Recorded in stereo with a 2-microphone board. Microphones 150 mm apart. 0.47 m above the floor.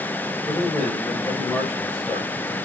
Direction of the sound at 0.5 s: Centre (ahead or behind).